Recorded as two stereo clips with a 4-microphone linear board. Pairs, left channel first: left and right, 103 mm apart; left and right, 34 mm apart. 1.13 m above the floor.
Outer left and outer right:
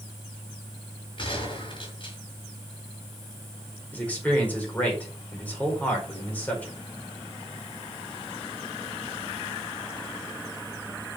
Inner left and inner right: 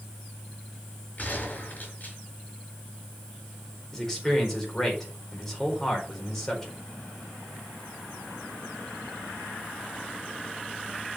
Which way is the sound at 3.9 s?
15° left (ahead or behind).